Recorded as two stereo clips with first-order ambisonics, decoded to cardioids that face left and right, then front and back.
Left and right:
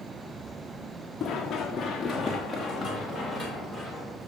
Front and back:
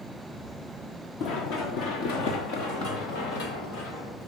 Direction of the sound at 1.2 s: 25° left.